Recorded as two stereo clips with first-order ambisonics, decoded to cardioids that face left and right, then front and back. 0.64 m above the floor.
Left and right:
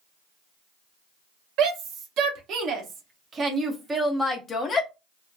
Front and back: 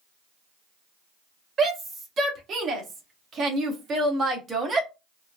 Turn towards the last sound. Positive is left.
turn(degrees=120)